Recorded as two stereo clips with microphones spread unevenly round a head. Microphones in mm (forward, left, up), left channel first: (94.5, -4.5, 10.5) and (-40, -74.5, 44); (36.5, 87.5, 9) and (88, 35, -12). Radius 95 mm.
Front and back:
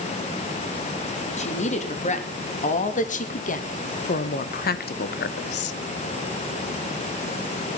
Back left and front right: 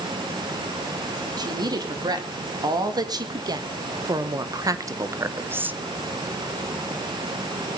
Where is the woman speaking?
15° right, 3.5 m; by 5.8 s 35° left, 0.7 m.